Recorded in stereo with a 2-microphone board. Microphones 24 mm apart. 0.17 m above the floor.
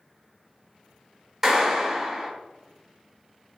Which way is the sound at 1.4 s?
10° right (ahead or behind).